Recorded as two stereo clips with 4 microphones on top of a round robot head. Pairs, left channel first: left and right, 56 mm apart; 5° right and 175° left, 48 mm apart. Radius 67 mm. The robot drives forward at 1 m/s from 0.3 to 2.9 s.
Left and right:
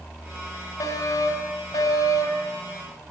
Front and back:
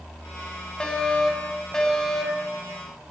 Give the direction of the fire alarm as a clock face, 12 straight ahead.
10 o'clock.